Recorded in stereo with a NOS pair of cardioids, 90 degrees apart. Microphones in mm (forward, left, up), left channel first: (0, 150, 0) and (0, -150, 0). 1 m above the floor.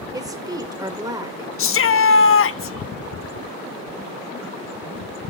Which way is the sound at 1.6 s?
45° left.